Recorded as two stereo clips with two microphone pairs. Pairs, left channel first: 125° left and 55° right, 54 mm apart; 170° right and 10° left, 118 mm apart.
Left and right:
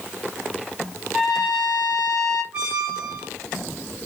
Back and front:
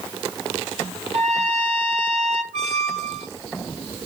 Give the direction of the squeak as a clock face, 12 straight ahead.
12 o'clock.